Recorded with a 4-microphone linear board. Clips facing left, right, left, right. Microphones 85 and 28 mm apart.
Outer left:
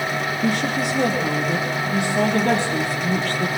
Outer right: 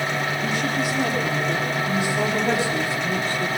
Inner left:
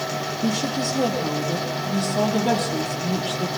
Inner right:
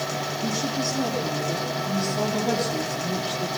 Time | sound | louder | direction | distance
0.4 | a woman speaking | outer left 5 dB, inner left 4 dB | 70° left (ahead or behind) | 7.5 m